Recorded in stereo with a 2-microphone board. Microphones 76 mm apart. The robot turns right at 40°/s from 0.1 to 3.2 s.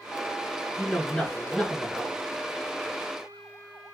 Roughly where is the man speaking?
Centre.